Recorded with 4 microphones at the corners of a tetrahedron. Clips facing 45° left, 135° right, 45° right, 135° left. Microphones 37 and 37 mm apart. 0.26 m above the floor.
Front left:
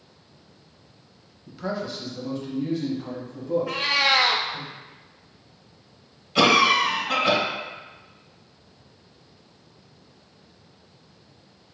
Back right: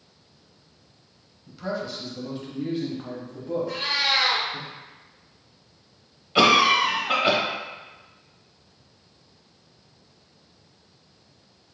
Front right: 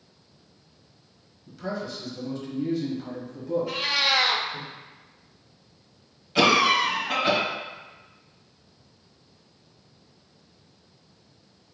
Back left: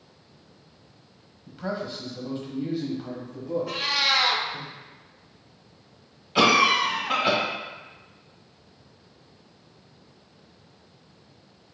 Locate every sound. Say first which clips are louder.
1.5 s a man speaking: front left 1 dB, back left 1 dB; 105° left, 1.1 m; by 4.7 s 130° right, 1.5 m
3.7 s a cat meowing: front left 3 dB, back left 1 dB; 40° left, 0.6 m
6.3 s a cough: even, back left 1 dB; 165° right, 1.1 m